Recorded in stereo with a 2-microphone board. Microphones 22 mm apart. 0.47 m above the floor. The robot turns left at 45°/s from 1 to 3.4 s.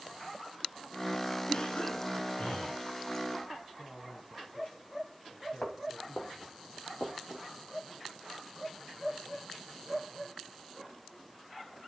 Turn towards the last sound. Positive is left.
turn(degrees=75)  # may be behind; listen again after turning